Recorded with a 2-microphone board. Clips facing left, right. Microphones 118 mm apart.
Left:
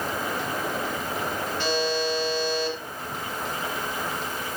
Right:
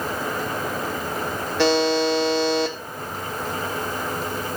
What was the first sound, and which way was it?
A buzzer, 75° right (ahead or behind).